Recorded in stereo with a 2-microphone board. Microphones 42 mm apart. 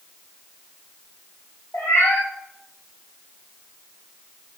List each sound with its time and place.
1.7 s a cat meowing: 80° left, 3.5 m